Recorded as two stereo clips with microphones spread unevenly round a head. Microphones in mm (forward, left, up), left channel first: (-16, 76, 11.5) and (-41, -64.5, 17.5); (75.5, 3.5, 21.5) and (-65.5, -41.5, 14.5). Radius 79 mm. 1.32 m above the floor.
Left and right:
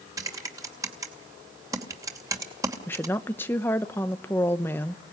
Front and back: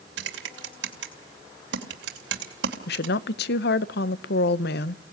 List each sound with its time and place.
0.2 s typing on a keyboard: 165° right, 2.5 m
2.9 s a woman speaking: straight ahead, 0.9 m